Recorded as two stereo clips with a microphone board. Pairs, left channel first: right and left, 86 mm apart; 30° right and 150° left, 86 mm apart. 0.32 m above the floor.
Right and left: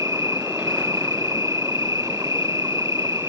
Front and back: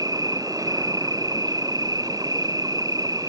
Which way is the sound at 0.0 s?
130° left.